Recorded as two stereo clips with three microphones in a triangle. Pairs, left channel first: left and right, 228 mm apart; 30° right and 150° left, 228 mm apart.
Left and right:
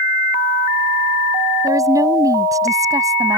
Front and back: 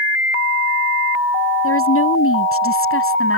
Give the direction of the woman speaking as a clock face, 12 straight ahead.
12 o'clock.